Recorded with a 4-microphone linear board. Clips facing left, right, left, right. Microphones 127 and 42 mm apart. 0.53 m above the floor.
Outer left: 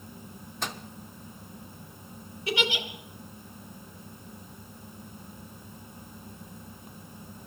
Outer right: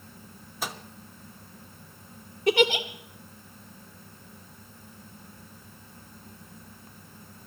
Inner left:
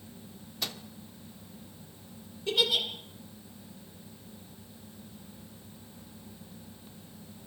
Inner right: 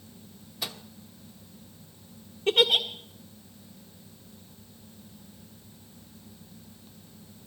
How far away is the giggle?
About 1.8 m.